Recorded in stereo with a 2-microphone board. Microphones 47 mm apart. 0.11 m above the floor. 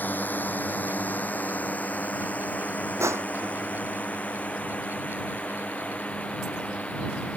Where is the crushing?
75° right (ahead or behind).